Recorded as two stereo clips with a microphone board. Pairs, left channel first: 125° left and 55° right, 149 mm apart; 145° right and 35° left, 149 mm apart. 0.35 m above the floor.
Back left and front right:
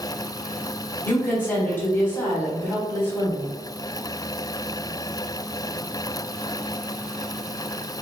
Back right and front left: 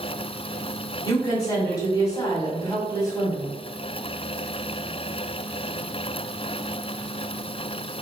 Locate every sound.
1.1 s a woman speaking: 175° right, 1.3 m